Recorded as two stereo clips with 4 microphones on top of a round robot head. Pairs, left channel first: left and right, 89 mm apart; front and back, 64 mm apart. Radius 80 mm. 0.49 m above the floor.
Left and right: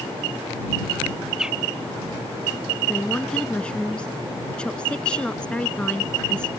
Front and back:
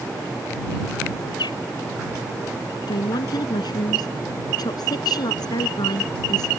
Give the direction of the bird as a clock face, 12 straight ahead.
12 o'clock.